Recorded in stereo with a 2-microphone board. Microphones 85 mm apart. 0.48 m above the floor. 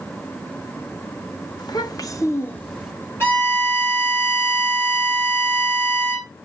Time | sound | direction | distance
1.6 | a child speaking | 55° left (ahead or behind) | 0.8 m
3.2 | a violin | 30° left (ahead or behind) | 2 m